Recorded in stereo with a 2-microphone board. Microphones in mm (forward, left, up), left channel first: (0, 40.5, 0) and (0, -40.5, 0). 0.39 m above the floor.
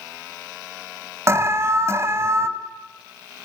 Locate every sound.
1.3 s an alarm: 35° right (ahead or behind), 2 m